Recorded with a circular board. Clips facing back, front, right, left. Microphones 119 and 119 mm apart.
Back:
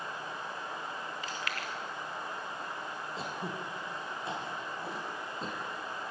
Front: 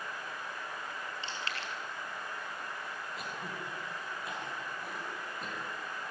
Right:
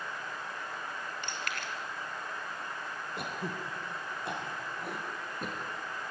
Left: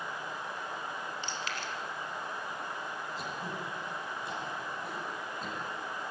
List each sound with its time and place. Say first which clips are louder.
1.2 s chewing: back 2 dB, left 1 dB; 60° right, 3 m
3.2 s throat clearing: back 5 dB, right 4 dB; 120° right, 3.5 m